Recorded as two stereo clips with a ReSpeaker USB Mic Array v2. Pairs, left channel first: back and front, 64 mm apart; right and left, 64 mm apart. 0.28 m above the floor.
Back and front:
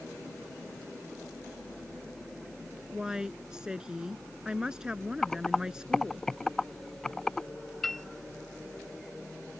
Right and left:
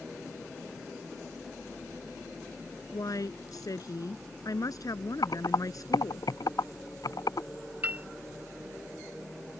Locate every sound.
2.9 s a woman speaking: 80° right
5.2 s typing on a keyboard: 95° right
7.8 s a piano: 100° left